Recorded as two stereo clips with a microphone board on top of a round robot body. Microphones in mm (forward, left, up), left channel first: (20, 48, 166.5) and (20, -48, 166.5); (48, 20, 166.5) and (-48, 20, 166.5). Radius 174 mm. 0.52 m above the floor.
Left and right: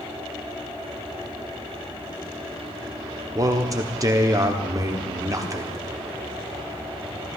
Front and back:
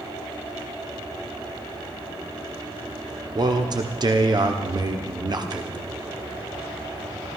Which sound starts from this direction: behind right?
A man speaking, at 3.4 s.